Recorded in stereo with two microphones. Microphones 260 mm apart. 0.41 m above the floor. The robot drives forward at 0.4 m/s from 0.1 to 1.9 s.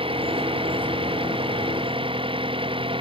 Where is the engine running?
20° right (ahead or behind).